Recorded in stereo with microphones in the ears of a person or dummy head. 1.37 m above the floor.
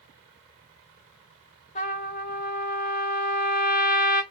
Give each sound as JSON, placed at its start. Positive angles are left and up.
{"t": 1.8, "sound": "a trumpet", "side_deg": 50, "distance_m": 1.6}